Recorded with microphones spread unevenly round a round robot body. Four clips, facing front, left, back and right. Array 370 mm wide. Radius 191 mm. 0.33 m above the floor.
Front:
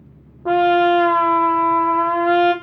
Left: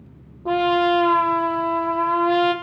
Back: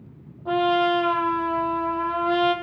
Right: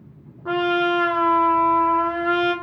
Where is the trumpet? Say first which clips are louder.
Left 2 dB, front 6 dB; 20° left, 3.5 m.